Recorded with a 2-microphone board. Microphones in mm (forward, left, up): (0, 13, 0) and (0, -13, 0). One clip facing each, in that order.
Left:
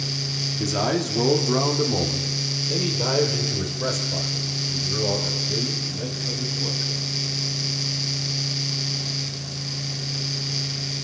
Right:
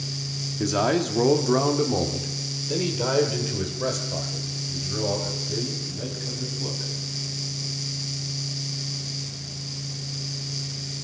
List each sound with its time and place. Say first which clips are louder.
0.6 s a man speaking: right 3 dB; 15° right (ahead or behind), 1.1 m; by 6.9 s 10° right (ahead or behind), 4.5 m